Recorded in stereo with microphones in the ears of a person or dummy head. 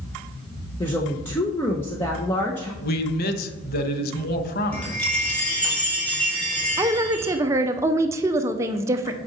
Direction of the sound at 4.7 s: 5° left (ahead or behind).